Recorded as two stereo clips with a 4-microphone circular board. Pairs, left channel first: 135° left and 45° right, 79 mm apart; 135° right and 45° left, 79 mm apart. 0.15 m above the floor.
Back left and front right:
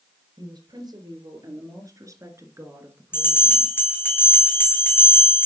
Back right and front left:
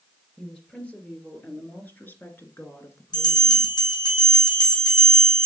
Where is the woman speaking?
55° right, 2.5 m; by 3.8 s 120° right, 1.7 m.